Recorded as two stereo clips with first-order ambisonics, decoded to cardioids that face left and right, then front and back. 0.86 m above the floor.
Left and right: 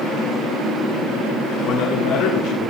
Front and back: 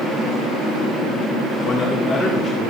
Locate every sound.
1.6 s a man speaking: 70° left, 1.8 m; by 2.7 s 90° left, 2 m